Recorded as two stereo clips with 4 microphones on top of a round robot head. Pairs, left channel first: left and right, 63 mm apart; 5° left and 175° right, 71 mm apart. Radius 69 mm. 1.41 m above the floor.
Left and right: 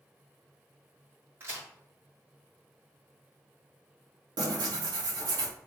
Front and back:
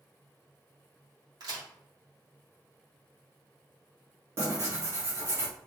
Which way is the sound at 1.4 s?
150° right.